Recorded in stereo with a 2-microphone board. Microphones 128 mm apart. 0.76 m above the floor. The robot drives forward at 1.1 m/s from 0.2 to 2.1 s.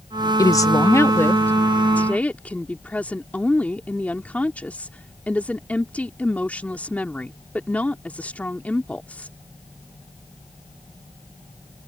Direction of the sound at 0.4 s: 25° left (ahead or behind).